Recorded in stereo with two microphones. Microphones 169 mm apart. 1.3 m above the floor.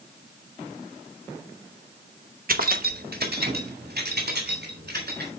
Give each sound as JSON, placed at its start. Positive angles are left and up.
{"t": 2.5, "sound": "keys jangling", "side_deg": -60, "distance_m": 0.9}